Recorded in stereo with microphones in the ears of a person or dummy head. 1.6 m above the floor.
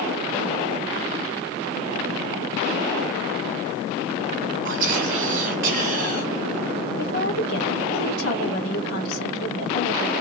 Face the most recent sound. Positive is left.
turn(degrees=60)  # may be behind; listen again after turning